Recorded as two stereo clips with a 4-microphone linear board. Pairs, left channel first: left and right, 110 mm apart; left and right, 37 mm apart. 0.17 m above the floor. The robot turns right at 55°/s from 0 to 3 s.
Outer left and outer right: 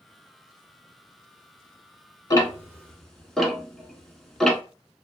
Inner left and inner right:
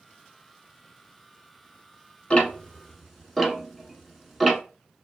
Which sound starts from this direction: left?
Ticking, at 2.3 s.